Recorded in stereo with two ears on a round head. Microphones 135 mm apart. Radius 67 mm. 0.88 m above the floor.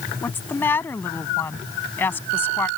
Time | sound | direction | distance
0.2 | a woman speaking | 15° left (ahead or behind) | ?